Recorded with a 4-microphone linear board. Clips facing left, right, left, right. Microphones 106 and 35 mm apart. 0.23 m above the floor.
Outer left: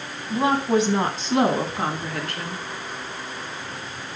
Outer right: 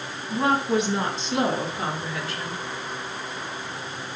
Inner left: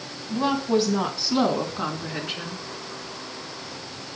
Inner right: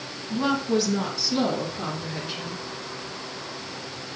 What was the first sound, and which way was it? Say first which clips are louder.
A woman speaking: outer left 2 dB, inner left 1 dB; 20° left (ahead or behind).